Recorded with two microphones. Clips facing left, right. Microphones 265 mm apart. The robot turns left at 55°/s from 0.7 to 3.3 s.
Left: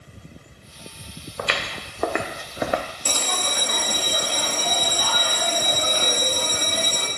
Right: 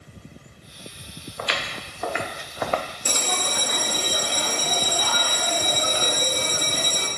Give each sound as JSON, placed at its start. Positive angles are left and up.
{"t": 1.4, "sound": "footsteps", "side_deg": 55, "distance_m": 1.1}
{"t": 3.0, "sound": "a bell", "side_deg": -15, "distance_m": 1.0}